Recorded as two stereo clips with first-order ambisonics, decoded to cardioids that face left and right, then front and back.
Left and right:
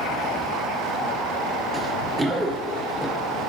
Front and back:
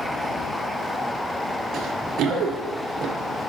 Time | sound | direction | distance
1.7 | running footsteps | 150° right | 1.8 m